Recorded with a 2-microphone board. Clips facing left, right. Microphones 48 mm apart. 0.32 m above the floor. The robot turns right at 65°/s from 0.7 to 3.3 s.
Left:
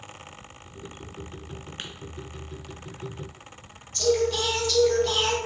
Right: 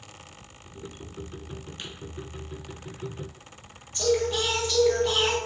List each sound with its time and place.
1.8 s tapping: 50° left (ahead or behind), 0.6 m; by 1.9 s 45° left (ahead or behind), 0.6 m
3.9 s singing: 20° right (ahead or behind), 1.1 m